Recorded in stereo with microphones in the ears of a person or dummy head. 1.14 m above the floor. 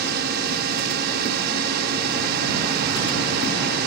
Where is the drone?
55° right (ahead or behind).